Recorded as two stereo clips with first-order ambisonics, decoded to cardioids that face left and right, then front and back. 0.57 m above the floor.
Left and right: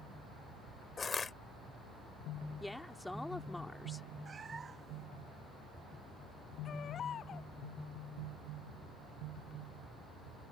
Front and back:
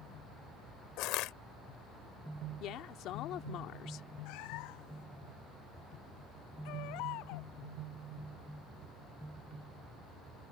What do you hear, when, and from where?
1.0 s crushing: 20° left
2.6 s a woman speaking: 5° left
4.2 s a cat meowing: 20° right
6.7 s a baby crying: 30° left